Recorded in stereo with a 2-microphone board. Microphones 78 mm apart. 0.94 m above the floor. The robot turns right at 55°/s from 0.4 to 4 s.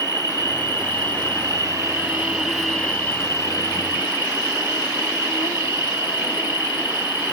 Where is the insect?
120° right, 0.8 m; by 7.3 s 75° left, 0.8 m.